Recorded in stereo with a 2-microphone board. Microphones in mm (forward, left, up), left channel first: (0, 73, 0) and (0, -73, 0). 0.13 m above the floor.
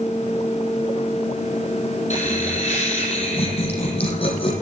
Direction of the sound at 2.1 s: 55° left (ahead or behind).